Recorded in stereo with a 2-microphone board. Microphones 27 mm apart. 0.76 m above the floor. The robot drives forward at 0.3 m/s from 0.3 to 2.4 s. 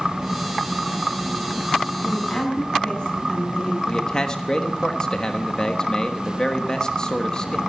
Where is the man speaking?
35° left (ahead or behind), 1.2 m.